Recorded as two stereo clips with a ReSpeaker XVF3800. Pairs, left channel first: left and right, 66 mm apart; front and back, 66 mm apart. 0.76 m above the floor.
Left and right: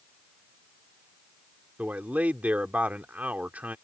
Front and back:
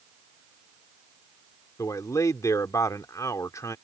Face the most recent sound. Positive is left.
turn(degrees=-25)